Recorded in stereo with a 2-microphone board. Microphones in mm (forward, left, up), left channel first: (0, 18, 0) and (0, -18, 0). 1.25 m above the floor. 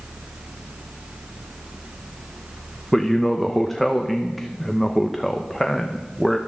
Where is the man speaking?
5° left (ahead or behind), 0.7 m.